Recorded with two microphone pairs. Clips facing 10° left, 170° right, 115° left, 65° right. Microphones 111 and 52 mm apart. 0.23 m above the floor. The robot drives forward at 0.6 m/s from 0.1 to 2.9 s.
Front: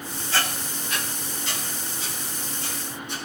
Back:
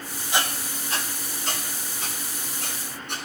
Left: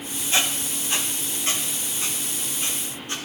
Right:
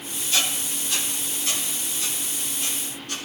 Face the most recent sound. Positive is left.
turn(degrees=170)